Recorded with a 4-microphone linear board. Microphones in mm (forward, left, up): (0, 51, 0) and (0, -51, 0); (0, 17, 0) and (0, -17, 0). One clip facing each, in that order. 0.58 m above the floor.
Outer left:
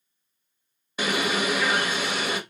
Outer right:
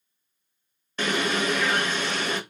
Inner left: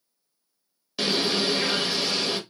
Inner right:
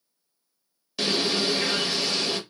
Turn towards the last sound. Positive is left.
turn(degrees=10)  # may be behind; listen again after turning